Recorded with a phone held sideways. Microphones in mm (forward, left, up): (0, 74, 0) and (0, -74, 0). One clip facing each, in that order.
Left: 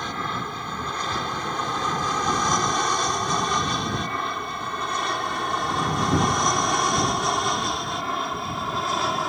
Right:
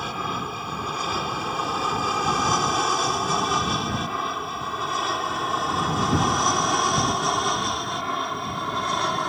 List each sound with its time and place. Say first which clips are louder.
0.0 s an aircraft: even; 5° right (ahead or behind); by 9.3 s centre (ahead or behind)